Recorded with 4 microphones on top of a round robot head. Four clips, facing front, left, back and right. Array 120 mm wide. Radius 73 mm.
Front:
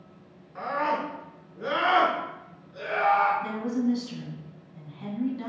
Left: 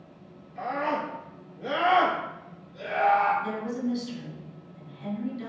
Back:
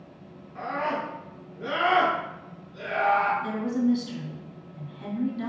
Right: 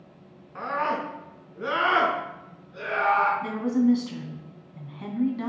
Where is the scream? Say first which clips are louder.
Right 1 dB, front 2 dB; 80° right, 5.5 m.